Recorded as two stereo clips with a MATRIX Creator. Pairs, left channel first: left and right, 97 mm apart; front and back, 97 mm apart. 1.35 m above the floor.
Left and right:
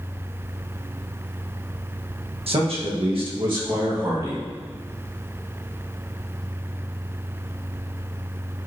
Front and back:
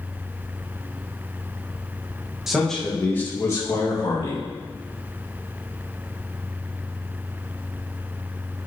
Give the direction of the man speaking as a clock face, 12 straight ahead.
3 o'clock.